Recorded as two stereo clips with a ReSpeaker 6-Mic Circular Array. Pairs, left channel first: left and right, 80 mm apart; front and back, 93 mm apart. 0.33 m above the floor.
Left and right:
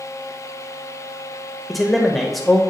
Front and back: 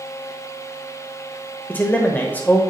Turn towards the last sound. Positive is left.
turn(degrees=0)